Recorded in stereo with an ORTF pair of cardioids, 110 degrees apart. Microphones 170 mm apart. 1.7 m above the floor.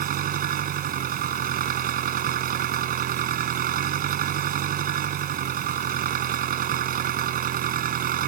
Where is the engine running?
60° right.